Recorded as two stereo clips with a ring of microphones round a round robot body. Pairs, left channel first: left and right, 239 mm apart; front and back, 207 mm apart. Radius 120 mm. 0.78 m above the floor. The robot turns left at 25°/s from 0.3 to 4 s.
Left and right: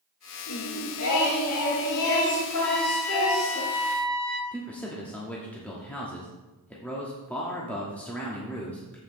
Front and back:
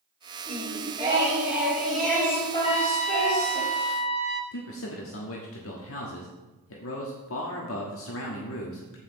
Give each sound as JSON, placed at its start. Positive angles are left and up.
{"t": 0.5, "sound": "singing", "azimuth_deg": 125, "distance_m": 4.0}
{"t": 2.6, "sound": "a trumpet", "azimuth_deg": 10, "distance_m": 1.0}
{"t": 4.5, "sound": "a man speaking", "azimuth_deg": 5, "distance_m": 1.3}